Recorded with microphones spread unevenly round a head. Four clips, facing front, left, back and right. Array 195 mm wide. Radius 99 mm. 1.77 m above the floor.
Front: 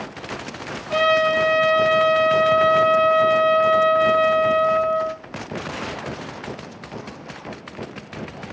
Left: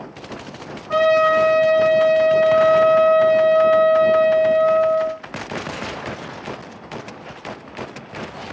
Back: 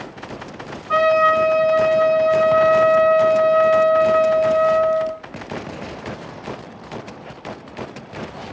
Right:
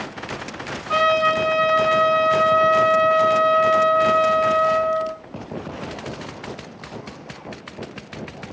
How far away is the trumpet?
About 5 m.